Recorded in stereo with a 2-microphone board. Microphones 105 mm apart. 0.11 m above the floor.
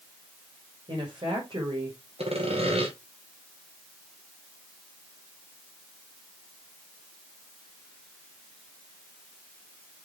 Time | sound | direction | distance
0.9 | a woman speaking | 55° right (ahead or behind) | 7 m
2.2 | sawing | 90° right | 5 m